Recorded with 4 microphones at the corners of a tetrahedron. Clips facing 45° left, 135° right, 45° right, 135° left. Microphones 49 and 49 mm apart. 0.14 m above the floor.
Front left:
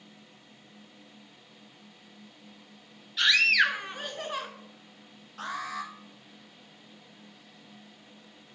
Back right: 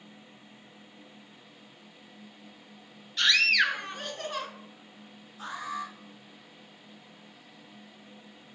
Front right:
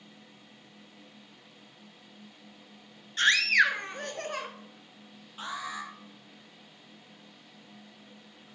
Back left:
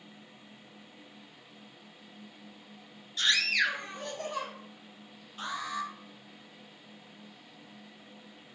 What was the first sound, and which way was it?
A scream, 40° right.